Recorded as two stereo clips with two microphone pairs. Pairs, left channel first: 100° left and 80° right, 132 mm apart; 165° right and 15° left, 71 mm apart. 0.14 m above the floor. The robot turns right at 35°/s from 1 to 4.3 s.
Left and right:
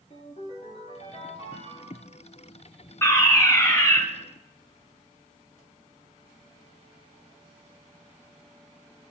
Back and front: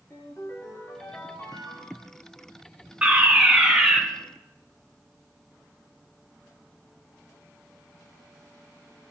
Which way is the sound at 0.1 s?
135° left.